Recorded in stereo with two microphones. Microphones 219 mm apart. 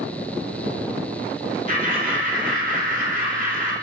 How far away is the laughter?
About 1.1 m.